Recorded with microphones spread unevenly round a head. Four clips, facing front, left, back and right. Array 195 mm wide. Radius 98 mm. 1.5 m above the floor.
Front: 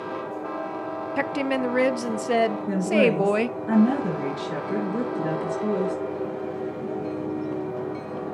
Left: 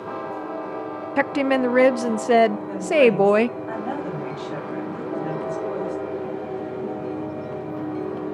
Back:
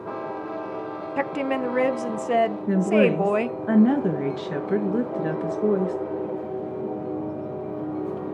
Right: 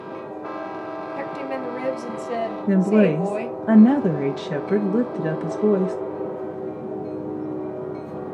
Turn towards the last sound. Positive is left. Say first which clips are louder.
# even, back 3 dB
turn(degrees=-110)